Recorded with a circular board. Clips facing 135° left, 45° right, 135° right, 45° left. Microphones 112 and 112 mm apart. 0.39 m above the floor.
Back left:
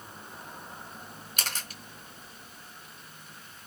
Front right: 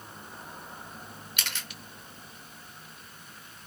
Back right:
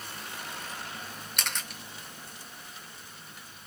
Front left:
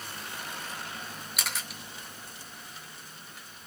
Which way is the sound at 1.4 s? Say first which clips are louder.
Back left 3 dB, even; 130° left.